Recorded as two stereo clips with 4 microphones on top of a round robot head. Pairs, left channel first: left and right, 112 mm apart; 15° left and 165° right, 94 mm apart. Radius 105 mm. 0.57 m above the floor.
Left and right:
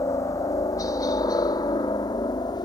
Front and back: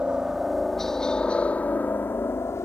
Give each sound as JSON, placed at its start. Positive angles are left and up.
{"t": 0.0, "sound": "a helicopter", "azimuth_deg": 120}